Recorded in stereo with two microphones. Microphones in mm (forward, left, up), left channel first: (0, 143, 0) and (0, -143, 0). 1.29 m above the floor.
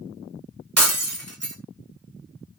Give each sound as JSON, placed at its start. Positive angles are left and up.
{"t": 0.8, "sound": "breaking glass", "side_deg": -55, "distance_m": 1.8}